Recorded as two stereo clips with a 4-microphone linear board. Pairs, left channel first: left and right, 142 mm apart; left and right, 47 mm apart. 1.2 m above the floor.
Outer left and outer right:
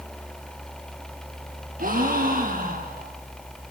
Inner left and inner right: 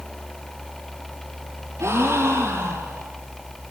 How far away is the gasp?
About 6.5 m.